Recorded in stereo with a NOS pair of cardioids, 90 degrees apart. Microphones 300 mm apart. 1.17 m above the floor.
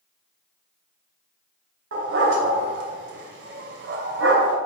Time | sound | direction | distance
1.9 | a dog barking | 50° right | 2.5 m